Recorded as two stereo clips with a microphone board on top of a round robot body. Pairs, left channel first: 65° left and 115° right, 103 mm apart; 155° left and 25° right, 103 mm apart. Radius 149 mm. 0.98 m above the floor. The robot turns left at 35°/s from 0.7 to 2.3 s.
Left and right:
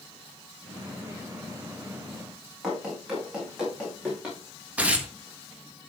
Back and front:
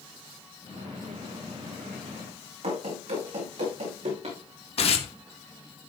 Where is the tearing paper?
170° left, 1.8 m.